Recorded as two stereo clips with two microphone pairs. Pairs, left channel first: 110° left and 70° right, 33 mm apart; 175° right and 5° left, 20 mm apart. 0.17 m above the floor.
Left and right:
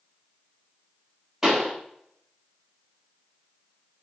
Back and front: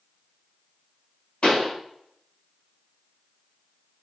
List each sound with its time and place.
1.4 s a pop: 145° right, 2 m